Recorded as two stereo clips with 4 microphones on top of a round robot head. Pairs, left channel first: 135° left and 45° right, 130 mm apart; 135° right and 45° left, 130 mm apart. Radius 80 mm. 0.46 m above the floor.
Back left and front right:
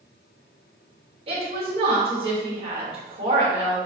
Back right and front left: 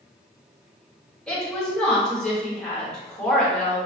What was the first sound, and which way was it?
A woman speaking, 55° right.